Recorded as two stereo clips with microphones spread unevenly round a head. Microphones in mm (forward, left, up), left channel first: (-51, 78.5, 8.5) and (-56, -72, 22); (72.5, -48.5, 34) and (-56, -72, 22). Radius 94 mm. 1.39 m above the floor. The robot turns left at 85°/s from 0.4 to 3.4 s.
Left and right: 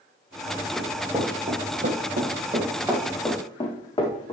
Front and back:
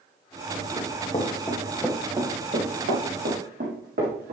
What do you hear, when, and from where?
0.8 s running footsteps: 5° left, 2.5 m; by 4.3 s 150° left, 4 m